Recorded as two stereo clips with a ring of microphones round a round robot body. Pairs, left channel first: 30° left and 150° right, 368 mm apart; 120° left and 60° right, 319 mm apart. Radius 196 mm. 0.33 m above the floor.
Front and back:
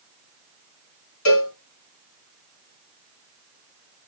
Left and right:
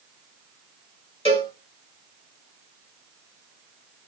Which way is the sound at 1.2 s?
50° left.